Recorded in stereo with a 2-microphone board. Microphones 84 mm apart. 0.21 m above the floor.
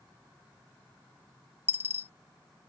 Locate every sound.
1.7 s a dropped coin: 30° right (ahead or behind)